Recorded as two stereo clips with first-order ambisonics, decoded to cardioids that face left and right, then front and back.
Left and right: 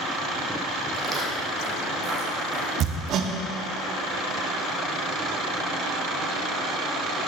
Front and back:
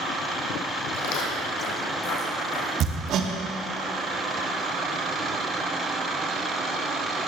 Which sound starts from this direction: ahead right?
Footsteps, at 0.9 s.